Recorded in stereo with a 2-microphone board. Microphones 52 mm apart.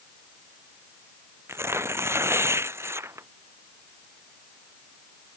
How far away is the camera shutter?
I don't hear a camera shutter.